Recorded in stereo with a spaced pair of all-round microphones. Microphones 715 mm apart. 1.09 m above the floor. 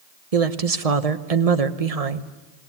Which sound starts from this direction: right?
A woman speaking, at 0.3 s.